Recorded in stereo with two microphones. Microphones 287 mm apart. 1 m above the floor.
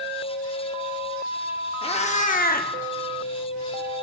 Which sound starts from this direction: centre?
A cat meowing, at 1.8 s.